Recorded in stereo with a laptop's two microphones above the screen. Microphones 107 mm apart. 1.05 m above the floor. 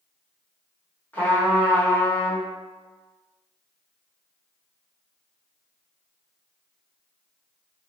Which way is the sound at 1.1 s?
15° left (ahead or behind).